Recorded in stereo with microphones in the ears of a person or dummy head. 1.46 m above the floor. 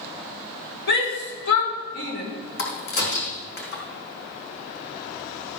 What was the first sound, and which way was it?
A shout, 65° left (ahead or behind).